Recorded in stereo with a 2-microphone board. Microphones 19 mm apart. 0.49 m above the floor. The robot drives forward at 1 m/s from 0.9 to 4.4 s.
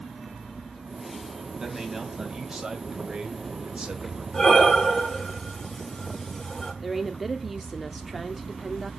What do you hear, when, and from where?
1.6 s a man speaking: 25° right (ahead or behind), 3 m; by 4.2 s 60° right (ahead or behind), 1.5 m
4.3 s breathing: 20° left (ahead or behind), 4 m
6.8 s a woman speaking: 5° right (ahead or behind), 0.8 m